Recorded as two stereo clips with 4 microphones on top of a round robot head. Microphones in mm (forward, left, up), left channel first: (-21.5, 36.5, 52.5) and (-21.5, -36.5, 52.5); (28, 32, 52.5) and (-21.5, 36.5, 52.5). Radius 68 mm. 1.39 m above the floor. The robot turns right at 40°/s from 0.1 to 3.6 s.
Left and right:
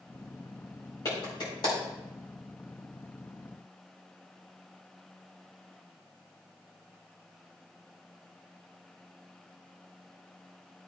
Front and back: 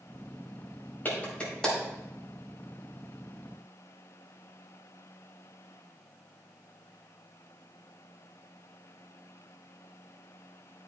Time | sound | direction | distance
1.1 | a clap | 45° left | 4.5 m